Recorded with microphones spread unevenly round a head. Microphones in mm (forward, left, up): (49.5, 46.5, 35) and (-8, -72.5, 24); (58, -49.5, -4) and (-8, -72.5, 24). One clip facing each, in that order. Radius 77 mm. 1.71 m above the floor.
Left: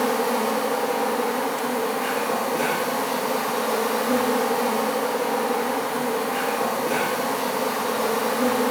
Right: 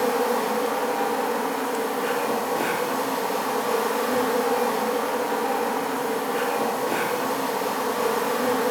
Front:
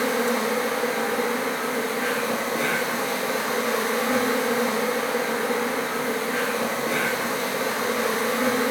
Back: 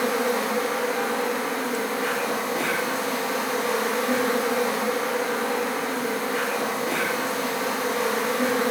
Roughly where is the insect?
Left.